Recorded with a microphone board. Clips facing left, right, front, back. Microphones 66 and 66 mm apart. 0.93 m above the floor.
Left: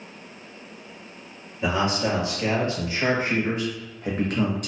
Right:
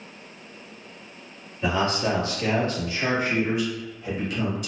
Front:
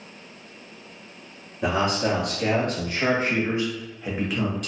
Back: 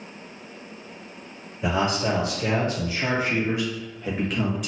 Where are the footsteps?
No footsteps in this recording.